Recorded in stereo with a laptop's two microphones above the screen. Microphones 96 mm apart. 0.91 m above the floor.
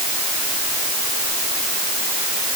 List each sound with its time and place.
Only background noise.